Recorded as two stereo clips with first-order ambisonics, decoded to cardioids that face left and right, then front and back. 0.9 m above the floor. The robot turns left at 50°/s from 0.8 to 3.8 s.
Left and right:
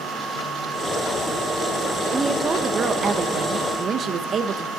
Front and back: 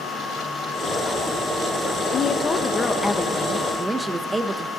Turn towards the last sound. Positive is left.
turn(degrees=-105)